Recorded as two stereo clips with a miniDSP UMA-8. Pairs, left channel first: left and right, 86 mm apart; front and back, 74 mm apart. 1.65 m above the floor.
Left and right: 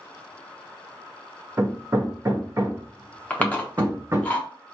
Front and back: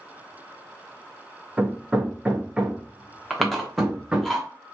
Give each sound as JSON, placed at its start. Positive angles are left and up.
{"t": 1.6, "sound": "hammering", "azimuth_deg": -110, "distance_m": 0.6}
{"t": 3.3, "sound": "chewing", "azimuth_deg": 90, "distance_m": 0.7}